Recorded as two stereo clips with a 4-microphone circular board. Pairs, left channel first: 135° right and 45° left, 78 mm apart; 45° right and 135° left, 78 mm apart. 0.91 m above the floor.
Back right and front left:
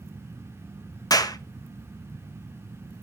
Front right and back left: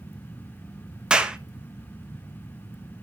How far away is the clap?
About 0.7 m.